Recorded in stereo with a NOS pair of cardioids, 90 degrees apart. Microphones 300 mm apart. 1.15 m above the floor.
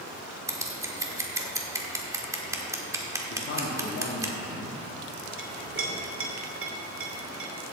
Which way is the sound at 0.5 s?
10° right.